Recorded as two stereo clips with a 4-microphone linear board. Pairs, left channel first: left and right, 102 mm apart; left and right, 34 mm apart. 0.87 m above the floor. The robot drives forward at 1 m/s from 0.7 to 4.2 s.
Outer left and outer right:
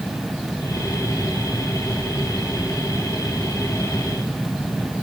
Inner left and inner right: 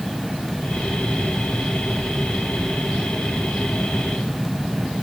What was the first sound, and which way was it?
Only background noise.